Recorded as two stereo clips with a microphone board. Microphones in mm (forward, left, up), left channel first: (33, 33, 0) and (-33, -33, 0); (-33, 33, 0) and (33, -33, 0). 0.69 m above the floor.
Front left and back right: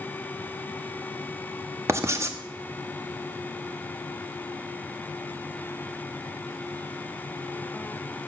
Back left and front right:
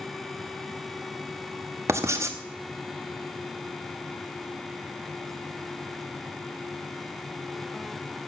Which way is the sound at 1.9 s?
90° right.